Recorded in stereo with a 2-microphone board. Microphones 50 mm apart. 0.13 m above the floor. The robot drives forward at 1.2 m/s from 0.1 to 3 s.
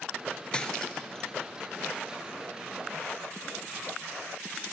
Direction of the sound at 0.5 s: 20° left (ahead or behind).